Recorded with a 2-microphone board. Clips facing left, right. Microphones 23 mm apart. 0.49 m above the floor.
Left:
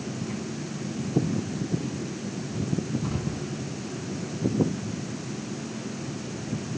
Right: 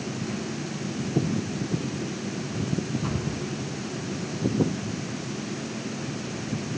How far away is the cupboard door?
About 7 m.